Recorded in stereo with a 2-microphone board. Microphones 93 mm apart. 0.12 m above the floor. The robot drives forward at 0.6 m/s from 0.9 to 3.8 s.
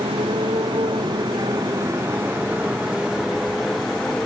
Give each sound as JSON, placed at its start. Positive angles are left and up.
{"t": 0.0, "sound": "a motorcycle", "side_deg": -85}